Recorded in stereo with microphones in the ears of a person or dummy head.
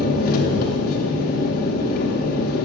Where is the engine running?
50° left (ahead or behind), 0.8 m.